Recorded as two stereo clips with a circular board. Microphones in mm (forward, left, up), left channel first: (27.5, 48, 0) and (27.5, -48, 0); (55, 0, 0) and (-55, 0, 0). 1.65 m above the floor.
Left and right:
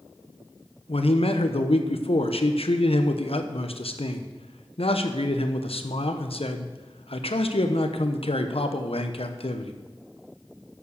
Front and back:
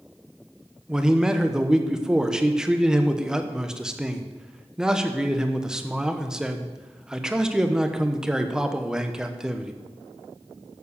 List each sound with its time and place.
0.9 s a man speaking: 95° left, 1.2 m